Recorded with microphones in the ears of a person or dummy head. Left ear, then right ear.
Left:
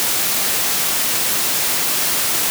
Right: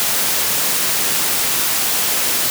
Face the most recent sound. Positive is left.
No sound to turn to.